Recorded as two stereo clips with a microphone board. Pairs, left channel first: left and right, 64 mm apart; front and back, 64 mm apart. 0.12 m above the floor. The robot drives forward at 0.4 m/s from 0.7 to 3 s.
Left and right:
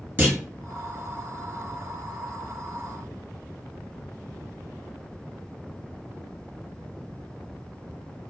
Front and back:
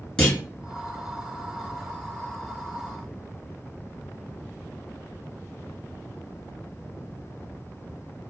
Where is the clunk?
70° right, 1.9 m.